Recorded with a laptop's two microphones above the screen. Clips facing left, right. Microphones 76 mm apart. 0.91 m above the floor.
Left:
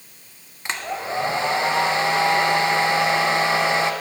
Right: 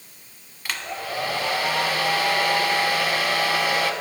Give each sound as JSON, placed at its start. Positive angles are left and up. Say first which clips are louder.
{"t": 0.7, "sound": "a hair dryer", "louder": "left 3 dB", "side_deg": 25, "distance_m": 1.0}